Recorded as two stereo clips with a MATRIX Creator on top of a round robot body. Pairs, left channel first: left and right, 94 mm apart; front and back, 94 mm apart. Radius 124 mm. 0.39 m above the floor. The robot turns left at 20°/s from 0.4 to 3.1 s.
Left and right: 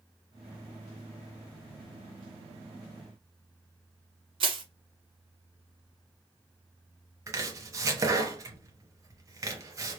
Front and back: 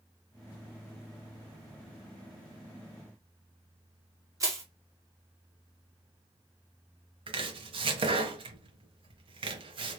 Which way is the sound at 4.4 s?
120° right.